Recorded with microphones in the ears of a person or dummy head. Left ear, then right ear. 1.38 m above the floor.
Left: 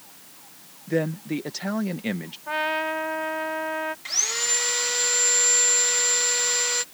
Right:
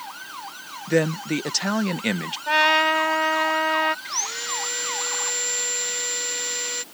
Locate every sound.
0.9 s a man speaking: 35° right (ahead or behind)
2.5 s a trumpet: 85° right
4.0 s sawing: 30° left (ahead or behind)